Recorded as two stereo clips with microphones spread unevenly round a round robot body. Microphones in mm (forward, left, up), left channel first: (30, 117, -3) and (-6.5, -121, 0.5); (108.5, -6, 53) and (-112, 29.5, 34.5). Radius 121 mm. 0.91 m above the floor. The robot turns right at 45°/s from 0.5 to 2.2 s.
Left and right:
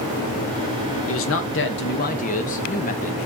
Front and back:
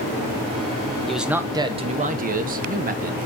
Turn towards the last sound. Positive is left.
turn(degrees=135)